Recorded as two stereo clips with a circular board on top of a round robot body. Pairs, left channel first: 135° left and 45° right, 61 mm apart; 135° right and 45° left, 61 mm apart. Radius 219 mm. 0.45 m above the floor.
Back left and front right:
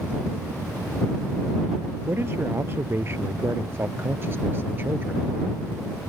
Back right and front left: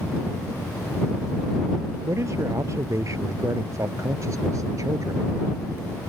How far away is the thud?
No thud in this recording.